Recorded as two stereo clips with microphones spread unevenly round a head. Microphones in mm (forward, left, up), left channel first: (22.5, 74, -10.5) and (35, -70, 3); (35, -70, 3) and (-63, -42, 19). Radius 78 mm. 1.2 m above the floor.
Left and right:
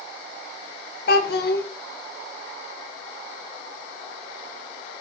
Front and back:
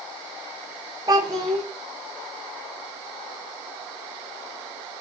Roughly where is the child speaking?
Left.